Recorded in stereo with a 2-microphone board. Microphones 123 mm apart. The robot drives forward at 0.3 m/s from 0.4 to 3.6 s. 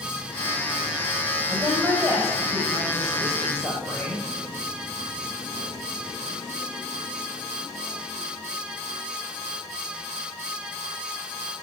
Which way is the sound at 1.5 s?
25° right (ahead or behind).